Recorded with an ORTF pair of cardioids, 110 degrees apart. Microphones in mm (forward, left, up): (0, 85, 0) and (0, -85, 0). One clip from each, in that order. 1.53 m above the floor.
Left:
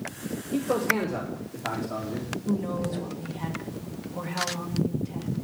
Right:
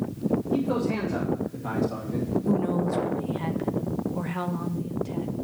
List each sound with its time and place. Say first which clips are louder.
0.5 s a man speaking: left 6 dB; 15° left, 2 m; by 2.3 s 15° right, 2.5 m
2.5 s a woman speaking: right 3 dB; 20° right, 1.5 m